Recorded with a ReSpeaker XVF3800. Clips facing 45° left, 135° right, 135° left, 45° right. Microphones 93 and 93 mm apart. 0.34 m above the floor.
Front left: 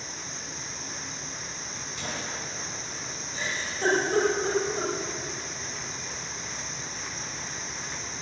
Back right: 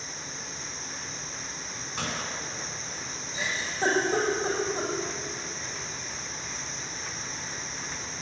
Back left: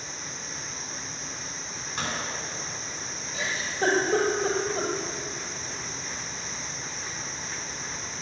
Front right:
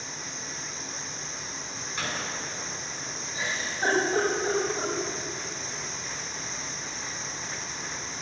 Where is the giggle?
140° left, 6.5 m.